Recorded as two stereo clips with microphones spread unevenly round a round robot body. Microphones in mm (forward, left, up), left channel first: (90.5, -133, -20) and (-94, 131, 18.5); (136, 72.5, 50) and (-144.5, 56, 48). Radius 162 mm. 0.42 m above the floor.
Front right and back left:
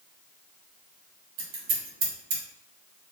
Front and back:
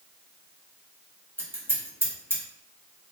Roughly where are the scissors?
Left.